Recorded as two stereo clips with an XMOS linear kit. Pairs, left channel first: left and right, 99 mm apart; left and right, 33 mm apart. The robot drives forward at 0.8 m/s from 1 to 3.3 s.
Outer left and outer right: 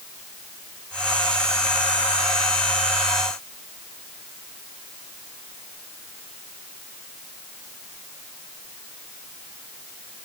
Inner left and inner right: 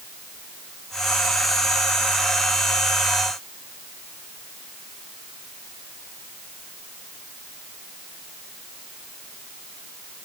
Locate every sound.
Only background noise.